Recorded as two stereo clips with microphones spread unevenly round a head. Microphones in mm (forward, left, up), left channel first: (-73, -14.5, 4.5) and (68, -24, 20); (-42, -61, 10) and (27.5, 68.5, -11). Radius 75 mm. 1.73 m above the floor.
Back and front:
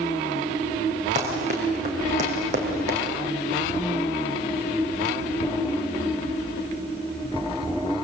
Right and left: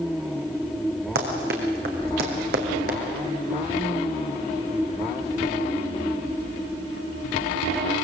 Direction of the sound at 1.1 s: 35° left.